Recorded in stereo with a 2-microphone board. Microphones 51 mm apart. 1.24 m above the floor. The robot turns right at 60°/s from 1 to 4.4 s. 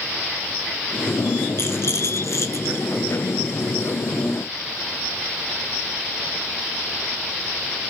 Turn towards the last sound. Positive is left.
turn(degrees=-140)